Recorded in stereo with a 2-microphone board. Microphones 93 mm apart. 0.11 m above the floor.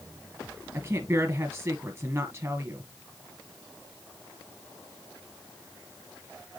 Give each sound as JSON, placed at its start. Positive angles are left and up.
{"t": 0.7, "sound": "a woman speaking", "side_deg": -25, "distance_m": 1.6}